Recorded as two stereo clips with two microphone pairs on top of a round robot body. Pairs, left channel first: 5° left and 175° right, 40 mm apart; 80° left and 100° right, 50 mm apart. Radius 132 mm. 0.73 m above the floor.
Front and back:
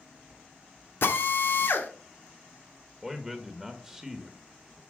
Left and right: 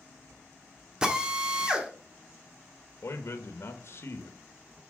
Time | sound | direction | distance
1.0 | a drill | 25° right | 1.4 m
3.0 | a man speaking | 90° left | 1.2 m